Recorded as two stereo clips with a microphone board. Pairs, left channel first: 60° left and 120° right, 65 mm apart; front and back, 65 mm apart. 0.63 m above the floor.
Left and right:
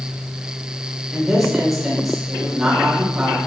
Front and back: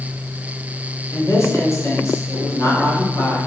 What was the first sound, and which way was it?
A woman speaking, 35° right.